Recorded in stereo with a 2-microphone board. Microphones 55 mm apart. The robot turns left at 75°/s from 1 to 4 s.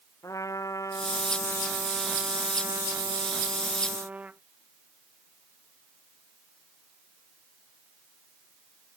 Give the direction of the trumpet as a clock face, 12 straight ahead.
10 o'clock.